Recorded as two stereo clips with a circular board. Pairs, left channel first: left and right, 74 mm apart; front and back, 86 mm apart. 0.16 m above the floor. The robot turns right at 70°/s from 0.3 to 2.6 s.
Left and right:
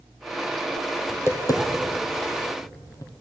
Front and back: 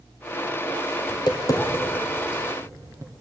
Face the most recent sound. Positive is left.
turn(degrees=125)